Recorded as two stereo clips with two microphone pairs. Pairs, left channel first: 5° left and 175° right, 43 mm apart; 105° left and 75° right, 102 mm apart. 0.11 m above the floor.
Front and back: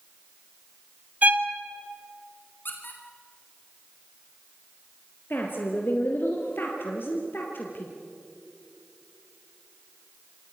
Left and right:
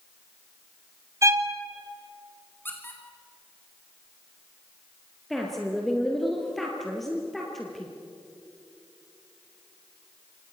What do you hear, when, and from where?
1.2 s a violin: 130° right, 1.9 m
2.6 s a squeak: 40° left, 5 m
5.3 s a woman speaking: 20° left, 3.5 m